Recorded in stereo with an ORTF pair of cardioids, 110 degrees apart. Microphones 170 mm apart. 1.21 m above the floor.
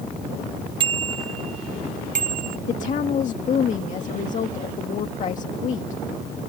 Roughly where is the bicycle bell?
Ahead right.